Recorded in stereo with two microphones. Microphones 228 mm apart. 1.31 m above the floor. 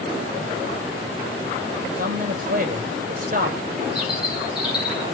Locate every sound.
1.9 s a man speaking: 40° right (ahead or behind), 6.5 m
4.0 s a bird: centre (ahead or behind), 5.5 m